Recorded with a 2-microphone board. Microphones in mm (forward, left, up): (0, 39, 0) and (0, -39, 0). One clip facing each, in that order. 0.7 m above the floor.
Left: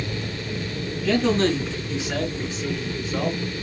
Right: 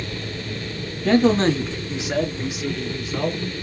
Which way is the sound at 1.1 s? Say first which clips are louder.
Right 4 dB; 45° right (ahead or behind).